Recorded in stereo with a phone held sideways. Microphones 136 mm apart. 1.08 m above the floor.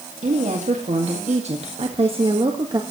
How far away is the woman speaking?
About 2 m.